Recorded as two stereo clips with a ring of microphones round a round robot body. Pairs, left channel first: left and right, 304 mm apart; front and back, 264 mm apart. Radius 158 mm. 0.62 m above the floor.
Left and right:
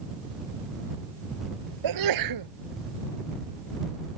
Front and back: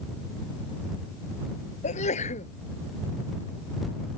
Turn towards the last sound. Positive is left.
turn(degrees=-70)